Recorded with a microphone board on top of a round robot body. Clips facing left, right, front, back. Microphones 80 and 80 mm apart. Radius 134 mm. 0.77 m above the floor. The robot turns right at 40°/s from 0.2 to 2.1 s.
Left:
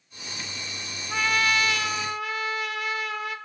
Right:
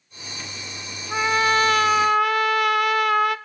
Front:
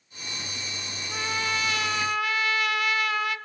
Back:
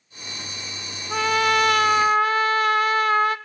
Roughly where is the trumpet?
Behind.